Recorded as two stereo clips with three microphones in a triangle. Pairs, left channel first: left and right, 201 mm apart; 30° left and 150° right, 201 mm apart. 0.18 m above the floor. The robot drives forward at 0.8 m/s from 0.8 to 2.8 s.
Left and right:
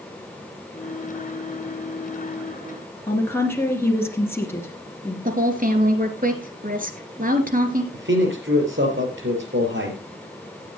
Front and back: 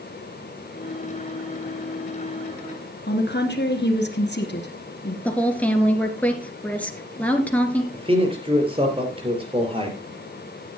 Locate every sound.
3.1 s a woman speaking: 15° left, 2.5 m
5.2 s a woman speaking: 50° right, 2.5 m
7.9 s a man speaking: 90° right, 4.5 m